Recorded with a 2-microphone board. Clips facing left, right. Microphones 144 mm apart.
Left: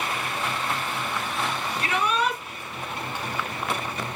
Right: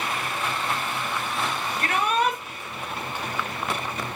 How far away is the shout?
About 5 m.